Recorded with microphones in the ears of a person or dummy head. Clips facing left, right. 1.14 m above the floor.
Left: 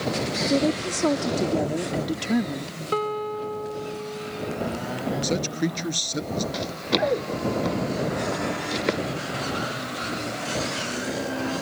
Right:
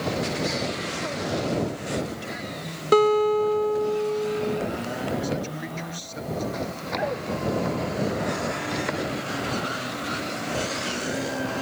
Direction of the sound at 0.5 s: 80° left.